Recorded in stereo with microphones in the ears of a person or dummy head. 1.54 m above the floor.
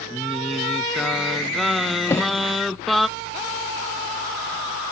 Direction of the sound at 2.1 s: 20° left (ahead or behind).